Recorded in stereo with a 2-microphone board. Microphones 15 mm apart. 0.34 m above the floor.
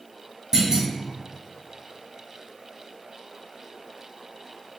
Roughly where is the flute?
I don't hear a flute.